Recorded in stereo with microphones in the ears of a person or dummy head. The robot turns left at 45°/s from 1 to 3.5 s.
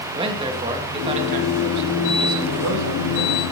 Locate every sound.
0.1 s a man speaking: 25° right, 3.5 m; by 3.4 s 135° right, 3.5 m